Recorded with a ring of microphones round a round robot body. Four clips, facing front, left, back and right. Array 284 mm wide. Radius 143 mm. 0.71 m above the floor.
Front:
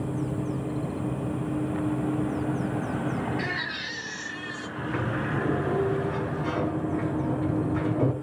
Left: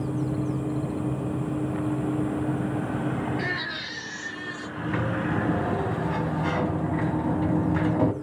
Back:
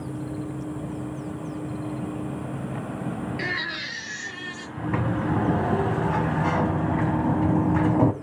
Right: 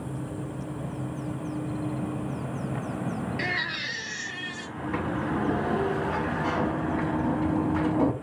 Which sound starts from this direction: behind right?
A baby crying, at 3.4 s.